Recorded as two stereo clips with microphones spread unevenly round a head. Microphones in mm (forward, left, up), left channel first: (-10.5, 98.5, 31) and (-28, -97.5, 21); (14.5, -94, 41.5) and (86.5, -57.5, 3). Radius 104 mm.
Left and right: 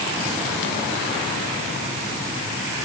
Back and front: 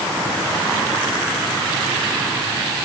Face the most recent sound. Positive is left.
No sound to turn to.